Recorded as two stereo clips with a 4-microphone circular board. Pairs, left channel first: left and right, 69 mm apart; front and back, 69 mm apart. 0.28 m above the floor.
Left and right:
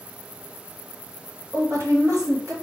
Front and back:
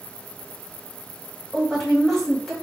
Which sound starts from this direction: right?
A woman speaking, at 1.5 s.